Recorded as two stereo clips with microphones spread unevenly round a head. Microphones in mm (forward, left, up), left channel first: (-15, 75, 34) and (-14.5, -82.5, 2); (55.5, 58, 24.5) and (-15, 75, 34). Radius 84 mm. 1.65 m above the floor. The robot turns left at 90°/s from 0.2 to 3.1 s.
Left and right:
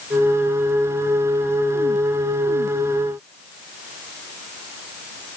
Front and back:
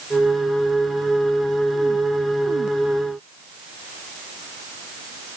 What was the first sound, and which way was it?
Only background noise.